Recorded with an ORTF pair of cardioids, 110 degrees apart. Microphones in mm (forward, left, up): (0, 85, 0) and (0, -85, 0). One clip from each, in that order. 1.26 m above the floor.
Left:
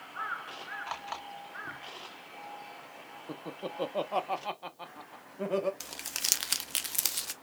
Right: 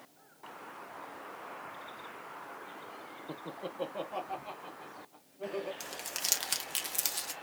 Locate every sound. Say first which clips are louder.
3.3 s laughter: left 3 dB; 5° left, 0.6 m; by 5.7 s 75° left, 1.3 m
5.8 s crumpling: left 2 dB; 20° left, 0.7 m